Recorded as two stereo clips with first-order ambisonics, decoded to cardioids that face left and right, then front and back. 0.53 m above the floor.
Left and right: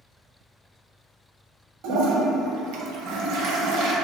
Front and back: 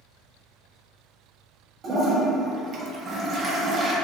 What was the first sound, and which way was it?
A toilet flushing, 115° right.